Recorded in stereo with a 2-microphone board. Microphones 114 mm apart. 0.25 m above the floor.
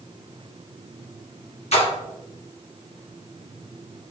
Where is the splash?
70° left (ahead or behind), 2.5 m.